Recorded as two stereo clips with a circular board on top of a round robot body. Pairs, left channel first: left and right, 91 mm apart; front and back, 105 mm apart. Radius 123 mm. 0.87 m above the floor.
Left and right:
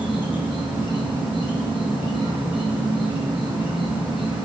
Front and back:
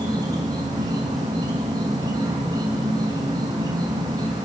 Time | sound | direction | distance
0.0 | an insect | 130° left | 4 m